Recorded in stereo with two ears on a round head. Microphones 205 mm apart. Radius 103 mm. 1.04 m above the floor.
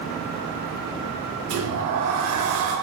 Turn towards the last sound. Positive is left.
turn(degrees=-65)  # may be behind; listen again after turning